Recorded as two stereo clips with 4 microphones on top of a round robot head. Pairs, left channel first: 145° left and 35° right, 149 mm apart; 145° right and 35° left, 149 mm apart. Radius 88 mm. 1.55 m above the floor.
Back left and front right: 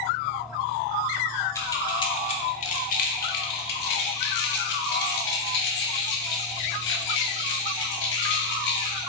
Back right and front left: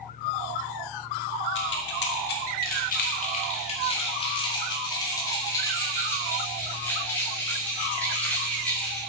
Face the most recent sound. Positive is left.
turn(degrees=130)